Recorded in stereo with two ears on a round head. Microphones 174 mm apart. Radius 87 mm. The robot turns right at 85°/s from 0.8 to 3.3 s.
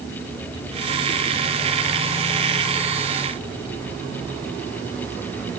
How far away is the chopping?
I don't hear chopping.